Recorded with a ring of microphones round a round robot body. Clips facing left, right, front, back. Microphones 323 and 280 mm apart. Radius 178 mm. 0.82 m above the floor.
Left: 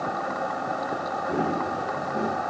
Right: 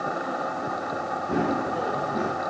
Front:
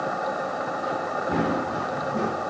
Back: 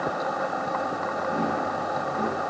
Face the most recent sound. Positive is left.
turn(degrees=-30)